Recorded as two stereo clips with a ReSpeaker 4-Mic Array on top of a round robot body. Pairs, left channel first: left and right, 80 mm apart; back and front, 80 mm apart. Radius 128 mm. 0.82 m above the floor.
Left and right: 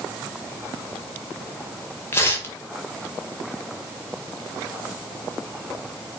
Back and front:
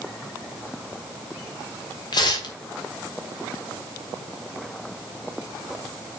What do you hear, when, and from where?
2.1 s tearing paper: 150° left, 2 m